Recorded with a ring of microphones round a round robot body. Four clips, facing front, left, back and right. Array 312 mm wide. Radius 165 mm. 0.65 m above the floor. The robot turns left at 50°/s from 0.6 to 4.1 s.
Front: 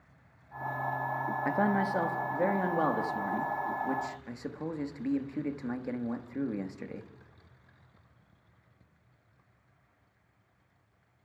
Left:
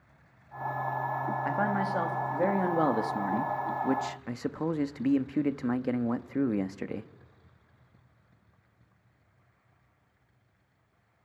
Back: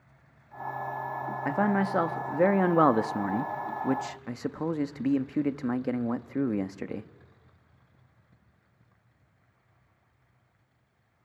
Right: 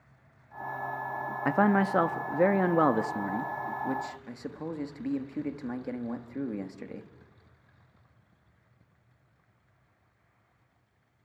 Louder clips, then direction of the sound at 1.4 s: Right 7 dB, back 3 dB; 90° right.